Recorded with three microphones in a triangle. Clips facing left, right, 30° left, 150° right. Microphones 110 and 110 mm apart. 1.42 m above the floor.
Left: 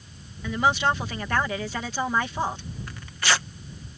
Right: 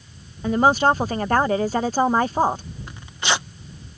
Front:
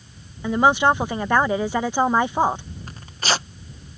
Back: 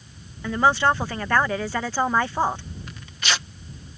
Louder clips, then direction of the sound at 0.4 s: Right 6 dB, front 2 dB; 45° right.